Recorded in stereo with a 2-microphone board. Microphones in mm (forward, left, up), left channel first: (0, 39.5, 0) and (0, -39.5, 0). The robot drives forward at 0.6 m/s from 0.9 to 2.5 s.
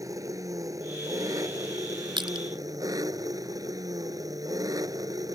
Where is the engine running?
45° right (ahead or behind); by 5.4 s 50° right (ahead or behind).